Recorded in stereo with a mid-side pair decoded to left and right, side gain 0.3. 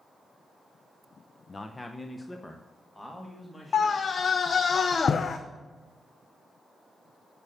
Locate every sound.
1.5 s a man speaking: 40° left, 0.7 m; by 4.1 s 15° left, 2.5 m
3.7 s a scream: 60° left, 0.6 m